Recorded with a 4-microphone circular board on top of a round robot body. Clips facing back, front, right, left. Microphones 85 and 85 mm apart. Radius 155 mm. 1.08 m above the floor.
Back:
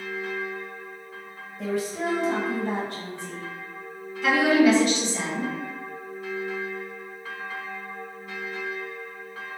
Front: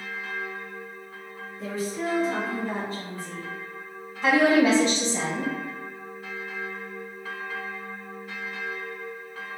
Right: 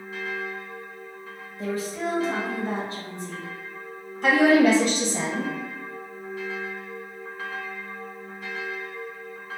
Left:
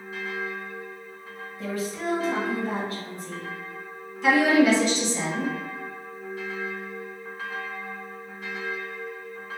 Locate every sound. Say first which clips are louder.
1.6 s a woman speaking: back 3 dB, right 2 dB; 155° right, 1.0 m
4.2 s a woman speaking: even, right 1 dB; 55° right, 1.3 m